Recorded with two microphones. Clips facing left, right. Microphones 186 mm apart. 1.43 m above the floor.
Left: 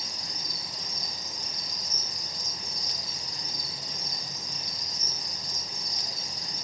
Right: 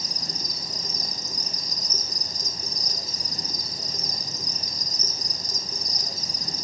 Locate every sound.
0.0 s an insect: 40° right (ahead or behind), 0.7 m